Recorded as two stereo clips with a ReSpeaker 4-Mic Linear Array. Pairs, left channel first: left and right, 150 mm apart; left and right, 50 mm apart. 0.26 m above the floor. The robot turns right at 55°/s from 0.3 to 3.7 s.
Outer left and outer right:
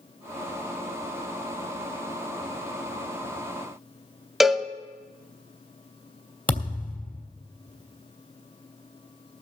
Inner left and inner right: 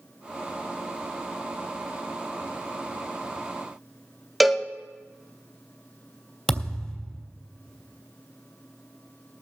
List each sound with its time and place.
4.4 s a cowbell: centre (ahead or behind), 0.5 m
6.5 s a thud: 10° left (ahead or behind), 3 m